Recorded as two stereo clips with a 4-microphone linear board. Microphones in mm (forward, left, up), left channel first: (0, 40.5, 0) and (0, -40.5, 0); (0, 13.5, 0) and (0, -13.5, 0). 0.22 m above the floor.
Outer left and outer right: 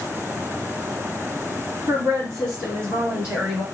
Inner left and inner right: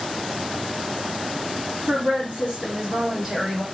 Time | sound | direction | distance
1.9 | a woman speaking | 50° right (ahead or behind) | 1.8 m